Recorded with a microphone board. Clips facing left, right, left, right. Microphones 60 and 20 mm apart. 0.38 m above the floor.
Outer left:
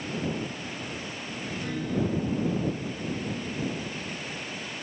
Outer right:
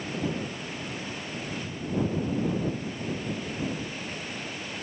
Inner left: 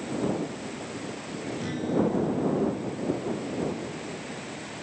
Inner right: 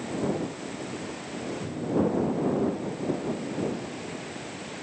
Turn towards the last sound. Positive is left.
turn(degrees=80)